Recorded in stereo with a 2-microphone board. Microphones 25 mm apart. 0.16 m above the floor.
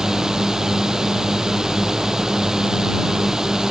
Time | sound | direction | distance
0.0 | a drone | 25° right (ahead or behind) | ?